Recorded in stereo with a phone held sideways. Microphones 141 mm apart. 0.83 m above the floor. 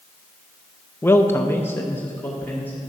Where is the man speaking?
15° left (ahead or behind), 0.5 m.